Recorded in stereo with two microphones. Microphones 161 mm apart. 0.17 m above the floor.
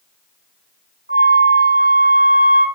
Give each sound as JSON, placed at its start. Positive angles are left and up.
{"t": 1.1, "sound": "a flute", "side_deg": -65, "distance_m": 7.0}